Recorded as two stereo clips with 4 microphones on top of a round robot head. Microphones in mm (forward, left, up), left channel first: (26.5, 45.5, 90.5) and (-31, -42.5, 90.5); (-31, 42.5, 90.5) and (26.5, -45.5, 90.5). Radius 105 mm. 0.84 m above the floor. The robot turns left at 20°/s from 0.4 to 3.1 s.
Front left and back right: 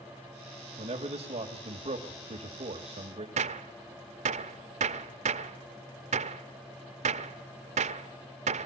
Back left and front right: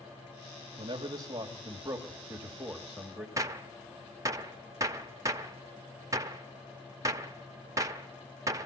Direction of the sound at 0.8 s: 95° right.